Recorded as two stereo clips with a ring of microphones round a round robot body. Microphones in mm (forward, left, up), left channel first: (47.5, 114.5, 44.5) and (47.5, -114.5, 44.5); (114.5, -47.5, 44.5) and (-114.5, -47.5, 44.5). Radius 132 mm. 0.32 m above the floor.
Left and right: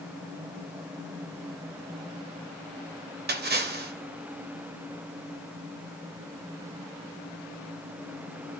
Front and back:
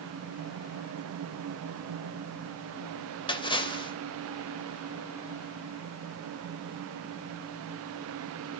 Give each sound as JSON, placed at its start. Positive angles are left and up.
{"t": 3.3, "sound": "a splash", "azimuth_deg": -65, "distance_m": 1.4}